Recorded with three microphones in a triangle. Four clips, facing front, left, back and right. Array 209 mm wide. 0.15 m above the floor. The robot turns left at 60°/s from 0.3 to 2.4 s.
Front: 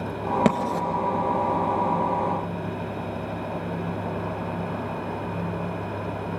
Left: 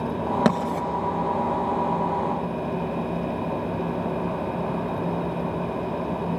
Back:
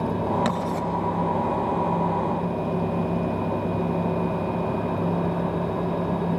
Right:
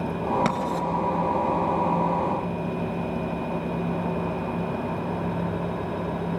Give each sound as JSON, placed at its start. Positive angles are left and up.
{"t": 0.5, "sound": "writing", "azimuth_deg": 35, "distance_m": 1.7}